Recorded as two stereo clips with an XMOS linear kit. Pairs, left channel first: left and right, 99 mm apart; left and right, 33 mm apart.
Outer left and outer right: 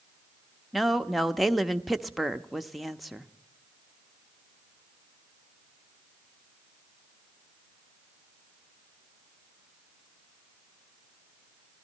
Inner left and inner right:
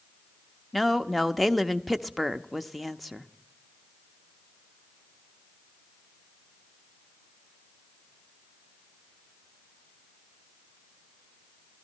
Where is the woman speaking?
Centre (ahead or behind), 0.6 m.